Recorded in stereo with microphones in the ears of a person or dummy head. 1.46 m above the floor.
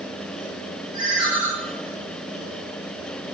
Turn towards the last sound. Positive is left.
turn(degrees=-30)  # may be behind; listen again after turning